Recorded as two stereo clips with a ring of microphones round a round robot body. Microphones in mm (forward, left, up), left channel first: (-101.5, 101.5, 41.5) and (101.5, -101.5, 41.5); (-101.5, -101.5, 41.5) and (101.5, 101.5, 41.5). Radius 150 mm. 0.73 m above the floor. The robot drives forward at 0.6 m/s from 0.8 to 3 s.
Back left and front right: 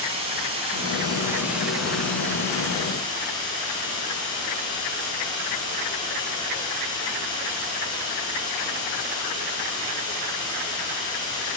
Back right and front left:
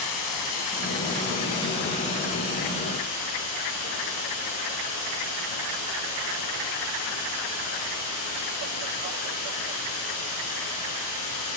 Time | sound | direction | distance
0.0 | running water | 115° right | 1.3 m